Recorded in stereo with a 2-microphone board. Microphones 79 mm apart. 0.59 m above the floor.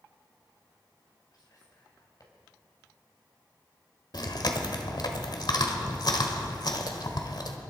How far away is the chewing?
About 1.5 m.